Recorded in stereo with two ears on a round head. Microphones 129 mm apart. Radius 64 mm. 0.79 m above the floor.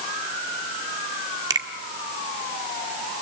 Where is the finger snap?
25° right (ahead or behind), 1.5 m.